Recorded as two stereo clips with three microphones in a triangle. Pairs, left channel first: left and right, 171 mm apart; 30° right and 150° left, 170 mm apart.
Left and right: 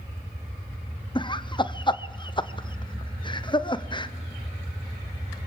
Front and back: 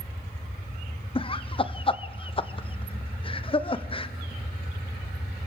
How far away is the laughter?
About 0.9 m.